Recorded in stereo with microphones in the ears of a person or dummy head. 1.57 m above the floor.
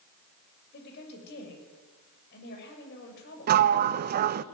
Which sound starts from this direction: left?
A woman speaking, at 0.7 s.